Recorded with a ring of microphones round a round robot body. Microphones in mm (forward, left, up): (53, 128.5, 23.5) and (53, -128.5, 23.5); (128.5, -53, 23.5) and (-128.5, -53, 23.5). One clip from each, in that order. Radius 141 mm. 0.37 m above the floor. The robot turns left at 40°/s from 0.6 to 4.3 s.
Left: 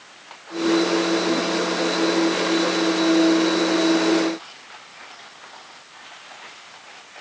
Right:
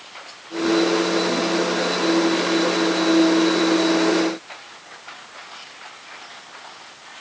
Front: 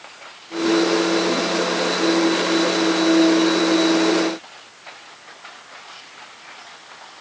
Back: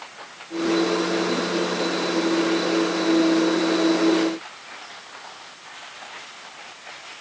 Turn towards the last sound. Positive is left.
No sound to turn to.